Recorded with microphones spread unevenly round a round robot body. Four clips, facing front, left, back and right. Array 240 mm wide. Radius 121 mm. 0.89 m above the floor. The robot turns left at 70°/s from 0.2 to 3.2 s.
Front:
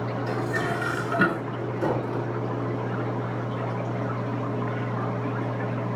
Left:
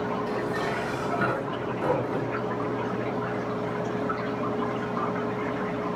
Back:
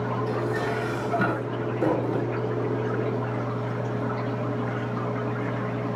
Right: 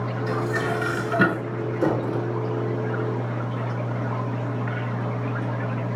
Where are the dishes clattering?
15° right, 8.5 m; by 2.3 s 155° right, 8.5 m.